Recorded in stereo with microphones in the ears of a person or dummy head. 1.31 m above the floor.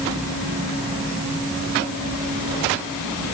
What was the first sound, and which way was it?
Only background noise.